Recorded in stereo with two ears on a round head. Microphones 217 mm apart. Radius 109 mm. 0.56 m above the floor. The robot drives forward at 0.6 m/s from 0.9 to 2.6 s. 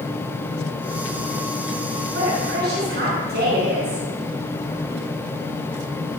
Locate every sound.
2.1 s a woman speaking: 40° right (ahead or behind), 6 m